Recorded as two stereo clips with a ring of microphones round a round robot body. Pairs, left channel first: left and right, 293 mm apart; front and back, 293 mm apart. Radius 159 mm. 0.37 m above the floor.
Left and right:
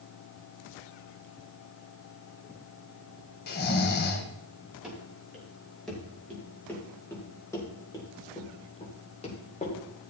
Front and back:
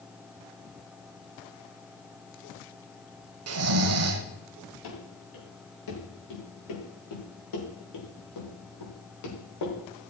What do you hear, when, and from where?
3.5 s snoring: 150° left, 1.3 m
4.8 s running footsteps: straight ahead, 6 m; by 10.1 s 25° left, 4.5 m